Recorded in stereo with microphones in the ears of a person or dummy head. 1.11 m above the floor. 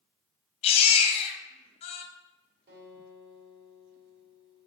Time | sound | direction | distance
0.6 | a baby crying | 35° left (ahead or behind) | 0.7 m
2.7 | a guitar | 60° right (ahead or behind) | 2 m